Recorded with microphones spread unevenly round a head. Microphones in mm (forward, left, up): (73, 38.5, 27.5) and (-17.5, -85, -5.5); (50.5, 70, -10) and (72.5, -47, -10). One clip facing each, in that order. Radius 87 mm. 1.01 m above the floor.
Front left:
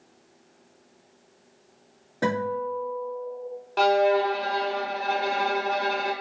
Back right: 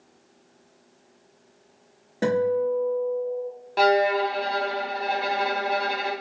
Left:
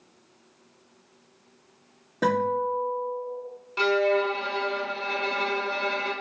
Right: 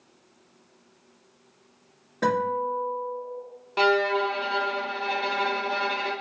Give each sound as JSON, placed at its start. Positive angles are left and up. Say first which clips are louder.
{"t": 2.2, "sound": "a guitar", "louder": "back right 5 dB, left 1 dB", "azimuth_deg": 170, "distance_m": 2.0}
{"t": 3.8, "sound": "a violin", "louder": "even, even", "azimuth_deg": -60, "distance_m": 1.0}